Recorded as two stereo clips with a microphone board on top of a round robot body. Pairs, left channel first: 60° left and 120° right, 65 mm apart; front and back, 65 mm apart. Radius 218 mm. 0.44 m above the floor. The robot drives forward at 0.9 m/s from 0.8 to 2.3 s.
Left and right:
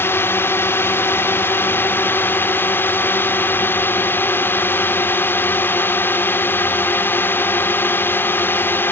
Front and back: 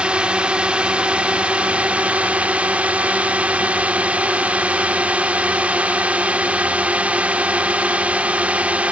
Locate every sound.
0.0 s a drone: 105° left; by 8.9 s 110° left